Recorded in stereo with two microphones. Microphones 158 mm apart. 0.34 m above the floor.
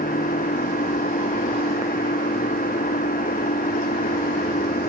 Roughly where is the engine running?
Left.